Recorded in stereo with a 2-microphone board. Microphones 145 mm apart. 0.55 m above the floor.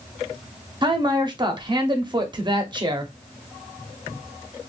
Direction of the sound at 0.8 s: 30° right (ahead or behind).